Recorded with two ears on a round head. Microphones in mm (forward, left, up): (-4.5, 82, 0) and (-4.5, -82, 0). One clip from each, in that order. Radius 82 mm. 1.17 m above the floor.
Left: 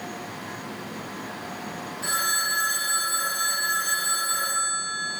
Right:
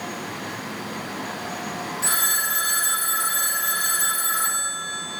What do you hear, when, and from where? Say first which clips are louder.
2.0 s a phone ringing: right 1 dB; 30° right (ahead or behind), 1.1 m